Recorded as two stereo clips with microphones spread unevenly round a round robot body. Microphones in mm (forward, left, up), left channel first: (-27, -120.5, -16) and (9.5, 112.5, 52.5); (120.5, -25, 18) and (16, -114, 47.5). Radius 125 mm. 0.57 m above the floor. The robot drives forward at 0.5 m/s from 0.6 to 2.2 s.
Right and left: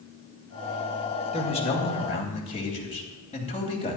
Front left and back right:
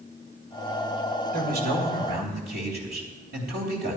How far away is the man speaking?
About 2.5 m.